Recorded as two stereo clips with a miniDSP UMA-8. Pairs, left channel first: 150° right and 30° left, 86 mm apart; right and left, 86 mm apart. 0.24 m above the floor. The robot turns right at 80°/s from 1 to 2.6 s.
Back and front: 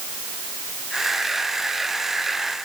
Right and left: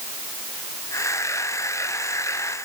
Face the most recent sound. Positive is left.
No sound to turn to.